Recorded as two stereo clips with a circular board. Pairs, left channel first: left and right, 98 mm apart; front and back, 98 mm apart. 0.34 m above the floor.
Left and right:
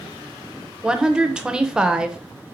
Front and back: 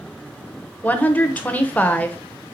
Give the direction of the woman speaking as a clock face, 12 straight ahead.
1 o'clock.